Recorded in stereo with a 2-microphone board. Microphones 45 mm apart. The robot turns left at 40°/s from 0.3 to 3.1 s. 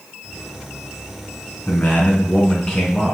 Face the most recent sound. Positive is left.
turn(degrees=10)